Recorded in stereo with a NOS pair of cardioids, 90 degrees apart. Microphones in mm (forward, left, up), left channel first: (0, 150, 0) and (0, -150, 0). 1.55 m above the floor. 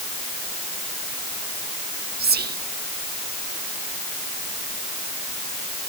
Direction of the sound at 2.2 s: 35° right.